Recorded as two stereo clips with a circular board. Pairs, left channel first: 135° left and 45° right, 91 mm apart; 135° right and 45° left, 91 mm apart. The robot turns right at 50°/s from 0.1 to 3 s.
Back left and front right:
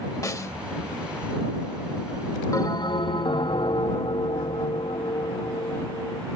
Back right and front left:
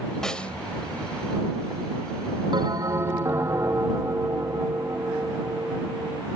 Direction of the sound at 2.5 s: 80° left.